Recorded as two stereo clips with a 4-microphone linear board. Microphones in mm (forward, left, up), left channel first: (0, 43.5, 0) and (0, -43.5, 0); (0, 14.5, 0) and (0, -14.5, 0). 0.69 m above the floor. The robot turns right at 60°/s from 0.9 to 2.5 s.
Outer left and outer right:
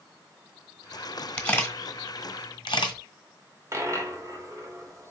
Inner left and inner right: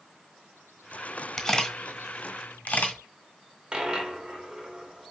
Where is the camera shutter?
10° left (ahead or behind), 1.3 m; by 3.0 s 75° left (ahead or behind), 1.3 m.